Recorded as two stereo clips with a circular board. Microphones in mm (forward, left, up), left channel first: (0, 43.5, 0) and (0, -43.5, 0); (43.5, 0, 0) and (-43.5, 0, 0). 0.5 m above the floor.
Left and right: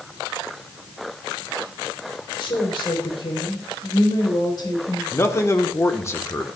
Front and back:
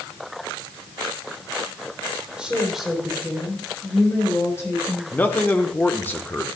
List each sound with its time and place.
2.4 s a woman speaking: 100° left, 3 m; by 5.0 s 55° left, 4 m
5.1 s a man speaking: 55° left, 1.0 m